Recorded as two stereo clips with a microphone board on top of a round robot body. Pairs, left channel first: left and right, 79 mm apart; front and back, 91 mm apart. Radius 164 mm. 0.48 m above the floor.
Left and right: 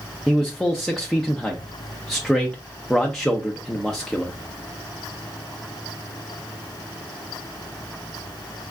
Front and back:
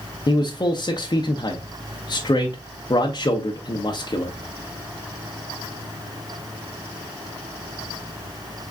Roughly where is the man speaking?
Ahead.